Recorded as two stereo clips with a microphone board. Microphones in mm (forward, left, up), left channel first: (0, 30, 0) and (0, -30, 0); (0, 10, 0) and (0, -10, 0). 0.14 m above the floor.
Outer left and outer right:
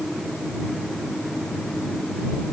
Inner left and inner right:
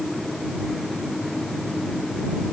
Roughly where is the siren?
I don't hear a siren.